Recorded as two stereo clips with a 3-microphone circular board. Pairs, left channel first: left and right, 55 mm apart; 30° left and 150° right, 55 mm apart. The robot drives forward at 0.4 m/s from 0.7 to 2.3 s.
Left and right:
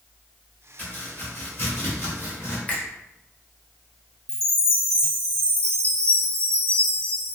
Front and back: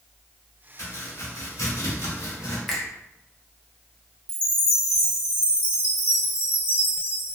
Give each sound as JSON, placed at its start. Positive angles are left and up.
{"t": 0.8, "sound": "chopping", "azimuth_deg": 35, "distance_m": 1.5}
{"t": 2.7, "sound": "a finger snap", "azimuth_deg": 120, "distance_m": 0.9}
{"t": 4.3, "sound": "a chime", "azimuth_deg": -100, "distance_m": 0.8}